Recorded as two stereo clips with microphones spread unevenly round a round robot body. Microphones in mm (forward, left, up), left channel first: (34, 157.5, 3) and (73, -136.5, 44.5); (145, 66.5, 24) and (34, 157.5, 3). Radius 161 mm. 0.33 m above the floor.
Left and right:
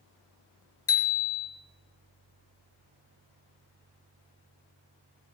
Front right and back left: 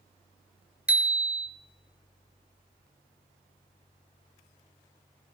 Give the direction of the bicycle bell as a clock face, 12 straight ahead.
10 o'clock.